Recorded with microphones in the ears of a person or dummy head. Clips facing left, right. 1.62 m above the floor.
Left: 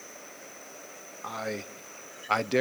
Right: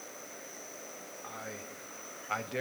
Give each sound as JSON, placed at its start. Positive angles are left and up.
{"t": 1.2, "sound": "a man speaking", "side_deg": 70, "distance_m": 0.7}